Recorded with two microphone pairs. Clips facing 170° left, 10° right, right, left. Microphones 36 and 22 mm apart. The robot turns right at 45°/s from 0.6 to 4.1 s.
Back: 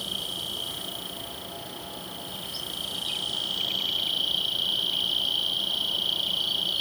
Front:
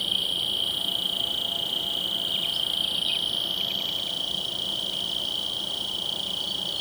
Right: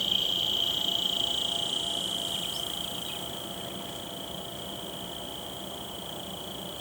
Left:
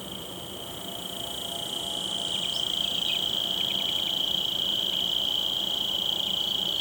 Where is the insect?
65° right; by 6.8 s 90° left.